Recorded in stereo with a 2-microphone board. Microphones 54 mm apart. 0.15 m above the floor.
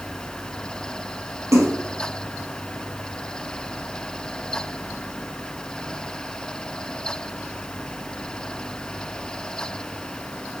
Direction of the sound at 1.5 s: 65° right (ahead or behind).